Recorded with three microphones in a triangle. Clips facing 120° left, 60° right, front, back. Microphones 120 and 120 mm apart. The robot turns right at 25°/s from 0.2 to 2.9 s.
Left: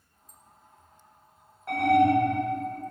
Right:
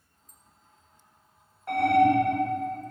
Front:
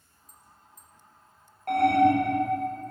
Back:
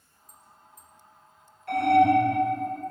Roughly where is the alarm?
Ahead left.